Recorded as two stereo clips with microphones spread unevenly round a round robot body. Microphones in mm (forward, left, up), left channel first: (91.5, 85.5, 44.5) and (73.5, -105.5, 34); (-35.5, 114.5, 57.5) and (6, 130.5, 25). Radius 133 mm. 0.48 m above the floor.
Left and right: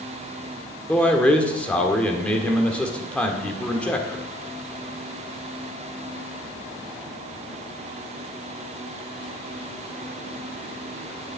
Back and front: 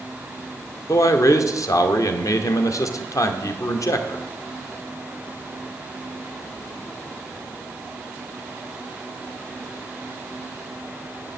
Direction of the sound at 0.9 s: 170° left.